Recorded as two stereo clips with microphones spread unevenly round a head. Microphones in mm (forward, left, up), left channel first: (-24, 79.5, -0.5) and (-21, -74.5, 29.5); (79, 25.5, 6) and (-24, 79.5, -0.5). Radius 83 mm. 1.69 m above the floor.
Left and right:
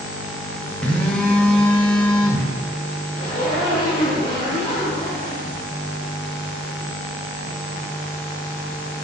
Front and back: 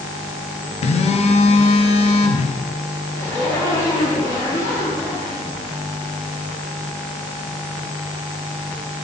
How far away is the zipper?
About 2.5 m.